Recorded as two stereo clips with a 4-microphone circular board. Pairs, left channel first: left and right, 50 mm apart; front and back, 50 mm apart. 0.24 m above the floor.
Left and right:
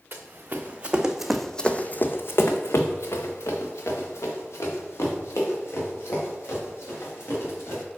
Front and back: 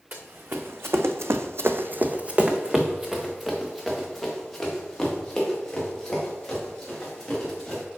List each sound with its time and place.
0.1 s running footsteps: 140° right, 1.2 m; by 7.8 s 75° left, 4.5 m